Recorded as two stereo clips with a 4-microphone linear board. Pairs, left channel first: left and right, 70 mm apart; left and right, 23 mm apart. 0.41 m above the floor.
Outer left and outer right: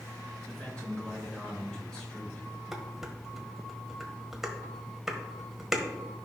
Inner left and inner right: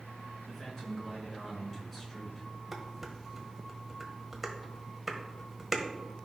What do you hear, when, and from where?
0.5 s a man speaking: 15° left (ahead or behind), 4 m
2.7 s dishes clattering: 5° right (ahead or behind), 1.3 m